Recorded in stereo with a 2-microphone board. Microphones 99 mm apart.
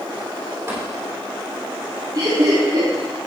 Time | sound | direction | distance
0.7 | tapping | 30° right (ahead or behind) | 2.5 m
2.1 | laughter | 45° right (ahead or behind) | 1.9 m